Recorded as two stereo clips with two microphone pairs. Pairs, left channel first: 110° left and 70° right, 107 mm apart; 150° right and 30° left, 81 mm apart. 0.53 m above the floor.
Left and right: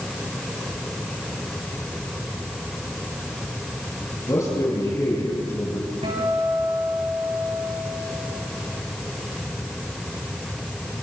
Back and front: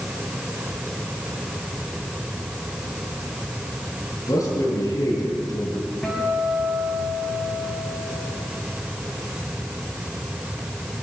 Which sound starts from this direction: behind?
A man speaking, at 4.2 s.